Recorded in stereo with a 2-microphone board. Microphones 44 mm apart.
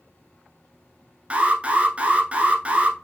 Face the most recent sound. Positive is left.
turn(degrees=-30)  # may be behind; listen again after turning